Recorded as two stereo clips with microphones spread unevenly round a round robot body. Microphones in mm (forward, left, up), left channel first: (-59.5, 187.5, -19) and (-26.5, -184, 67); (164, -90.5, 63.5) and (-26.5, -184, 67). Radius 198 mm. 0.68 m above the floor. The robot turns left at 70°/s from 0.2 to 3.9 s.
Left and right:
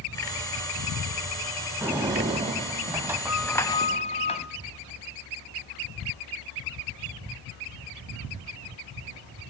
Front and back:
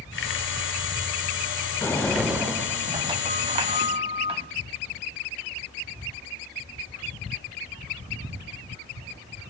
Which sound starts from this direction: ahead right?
A sliding door, at 1.8 s.